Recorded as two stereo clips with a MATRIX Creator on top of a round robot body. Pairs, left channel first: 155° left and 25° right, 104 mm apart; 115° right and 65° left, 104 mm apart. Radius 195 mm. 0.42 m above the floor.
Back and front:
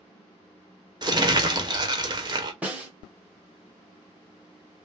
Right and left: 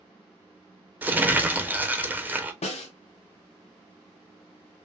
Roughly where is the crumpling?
Ahead.